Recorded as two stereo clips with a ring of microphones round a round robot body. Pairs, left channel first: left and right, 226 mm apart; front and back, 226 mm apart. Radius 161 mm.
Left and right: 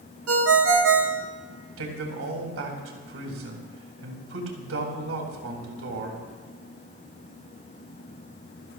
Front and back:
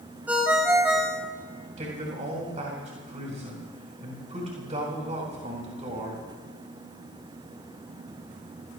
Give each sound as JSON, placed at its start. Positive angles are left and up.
{"t": 0.3, "sound": "a ringtone", "azimuth_deg": -95, "distance_m": 1.4}
{"t": 1.8, "sound": "a man speaking", "azimuth_deg": -115, "distance_m": 3.5}